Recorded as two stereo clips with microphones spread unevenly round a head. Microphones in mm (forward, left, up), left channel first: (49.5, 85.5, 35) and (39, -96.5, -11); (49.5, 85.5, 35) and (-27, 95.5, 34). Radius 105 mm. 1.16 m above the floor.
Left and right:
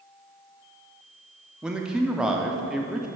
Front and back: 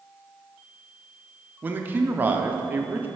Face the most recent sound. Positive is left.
turn(degrees=-150)